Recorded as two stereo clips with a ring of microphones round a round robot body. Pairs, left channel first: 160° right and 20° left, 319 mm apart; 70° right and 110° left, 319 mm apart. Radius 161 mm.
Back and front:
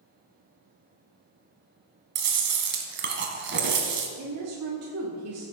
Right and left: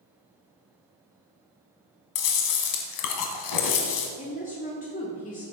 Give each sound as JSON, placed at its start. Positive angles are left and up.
{"t": 2.1, "sound": "chewing", "azimuth_deg": -35, "distance_m": 1.7}
{"t": 4.2, "sound": "a woman speaking", "azimuth_deg": -5, "distance_m": 1.7}